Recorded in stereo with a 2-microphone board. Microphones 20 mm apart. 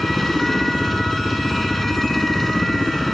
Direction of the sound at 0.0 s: 5° left (ahead or behind).